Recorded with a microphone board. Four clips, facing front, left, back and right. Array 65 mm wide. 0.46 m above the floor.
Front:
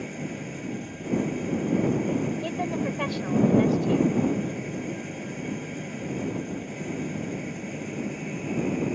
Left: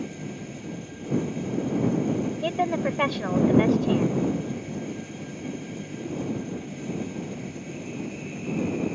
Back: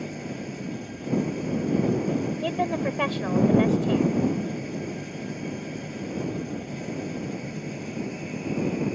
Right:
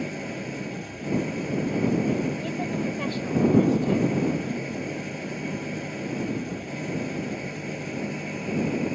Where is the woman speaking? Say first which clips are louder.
Left 4 dB, back 3 dB; 115° left.